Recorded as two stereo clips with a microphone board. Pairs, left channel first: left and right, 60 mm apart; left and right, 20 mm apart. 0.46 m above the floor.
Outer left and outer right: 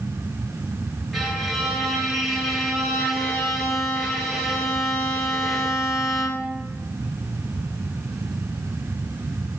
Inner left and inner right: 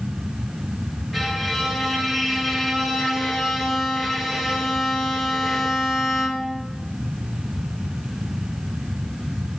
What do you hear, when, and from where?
1.1 s a violin: centre (ahead or behind), 1.0 m